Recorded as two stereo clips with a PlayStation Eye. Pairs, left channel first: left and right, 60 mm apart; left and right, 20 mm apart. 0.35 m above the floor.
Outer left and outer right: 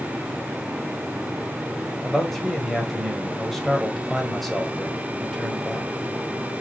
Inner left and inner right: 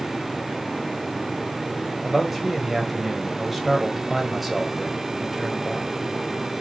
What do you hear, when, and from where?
2.0 s a man speaking: 5° left (ahead or behind), 1.0 m